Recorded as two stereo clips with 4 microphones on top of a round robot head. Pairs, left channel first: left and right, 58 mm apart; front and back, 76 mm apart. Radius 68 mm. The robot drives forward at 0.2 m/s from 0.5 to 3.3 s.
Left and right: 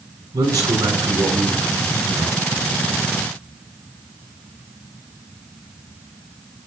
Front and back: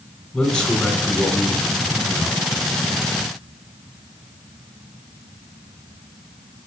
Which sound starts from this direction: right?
A man speaking, at 0.3 s.